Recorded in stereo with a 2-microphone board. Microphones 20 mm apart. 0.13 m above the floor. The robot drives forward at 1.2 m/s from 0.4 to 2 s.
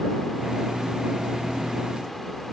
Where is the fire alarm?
I don't hear a fire alarm.